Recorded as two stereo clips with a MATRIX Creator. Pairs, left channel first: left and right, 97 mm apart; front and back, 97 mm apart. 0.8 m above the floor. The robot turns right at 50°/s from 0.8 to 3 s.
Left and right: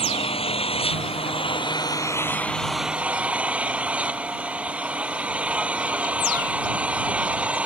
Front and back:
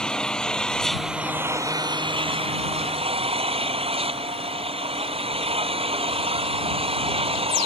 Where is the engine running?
85° left; by 7.7 s 165° right.